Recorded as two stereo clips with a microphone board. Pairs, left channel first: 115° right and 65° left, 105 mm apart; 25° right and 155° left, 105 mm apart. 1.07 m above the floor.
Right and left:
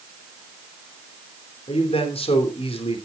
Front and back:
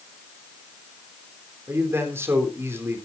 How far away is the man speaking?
About 3.5 m.